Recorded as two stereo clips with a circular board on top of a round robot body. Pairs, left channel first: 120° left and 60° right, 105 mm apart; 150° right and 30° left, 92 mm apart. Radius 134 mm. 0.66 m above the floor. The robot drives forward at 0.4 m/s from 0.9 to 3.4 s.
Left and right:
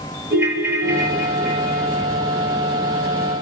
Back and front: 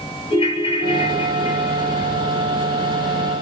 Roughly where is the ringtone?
Behind right.